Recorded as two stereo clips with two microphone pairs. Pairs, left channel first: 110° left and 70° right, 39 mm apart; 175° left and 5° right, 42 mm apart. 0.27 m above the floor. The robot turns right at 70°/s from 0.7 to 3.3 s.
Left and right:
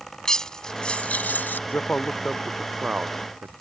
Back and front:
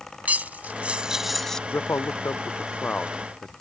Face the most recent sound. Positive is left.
turn(degrees=-105)